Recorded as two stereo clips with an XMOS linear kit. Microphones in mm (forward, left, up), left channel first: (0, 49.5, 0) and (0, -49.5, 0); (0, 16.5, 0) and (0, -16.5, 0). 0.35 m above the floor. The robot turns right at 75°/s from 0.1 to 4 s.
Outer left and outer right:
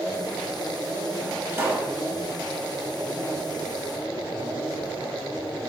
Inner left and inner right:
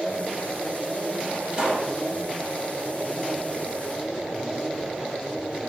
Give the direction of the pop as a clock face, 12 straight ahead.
1 o'clock.